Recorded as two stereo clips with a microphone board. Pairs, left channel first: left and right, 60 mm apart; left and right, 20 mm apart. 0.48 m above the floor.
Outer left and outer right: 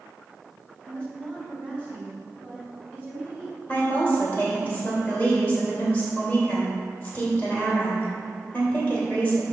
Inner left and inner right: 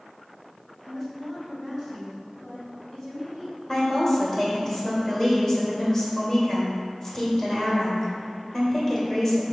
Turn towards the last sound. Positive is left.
turn(degrees=35)  # may be behind; listen again after turning